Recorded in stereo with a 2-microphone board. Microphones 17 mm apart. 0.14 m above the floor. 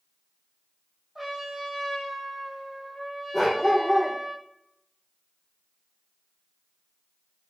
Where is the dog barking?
15° right (ahead or behind), 2 m.